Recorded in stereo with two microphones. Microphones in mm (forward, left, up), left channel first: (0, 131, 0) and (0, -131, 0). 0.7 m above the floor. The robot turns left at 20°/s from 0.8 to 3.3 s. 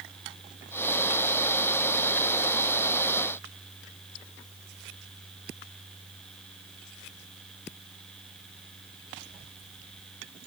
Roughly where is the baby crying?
I don't hear a baby crying.